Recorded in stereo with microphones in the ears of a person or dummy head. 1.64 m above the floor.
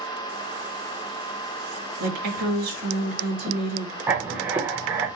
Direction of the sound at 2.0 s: 80° right.